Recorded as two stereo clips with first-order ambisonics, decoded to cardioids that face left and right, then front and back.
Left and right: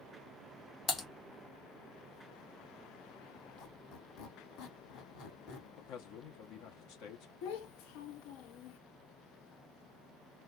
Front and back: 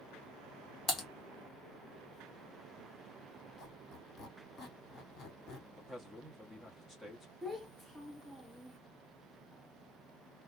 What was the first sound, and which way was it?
Typing on a keyboard, 45° left.